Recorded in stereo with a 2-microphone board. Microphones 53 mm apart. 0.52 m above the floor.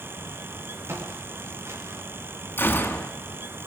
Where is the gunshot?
40° left (ahead or behind), 3.5 m.